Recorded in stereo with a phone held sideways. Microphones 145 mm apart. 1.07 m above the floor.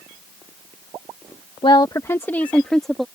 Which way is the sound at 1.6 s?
35° left (ahead or behind).